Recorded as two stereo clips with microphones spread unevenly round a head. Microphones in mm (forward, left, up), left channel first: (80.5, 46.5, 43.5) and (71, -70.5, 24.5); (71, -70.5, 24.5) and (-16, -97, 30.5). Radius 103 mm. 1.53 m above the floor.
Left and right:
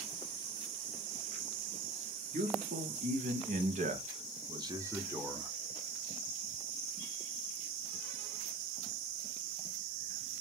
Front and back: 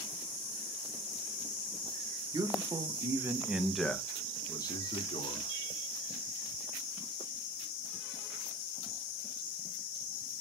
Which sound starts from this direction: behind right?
A man speaking, at 2.3 s.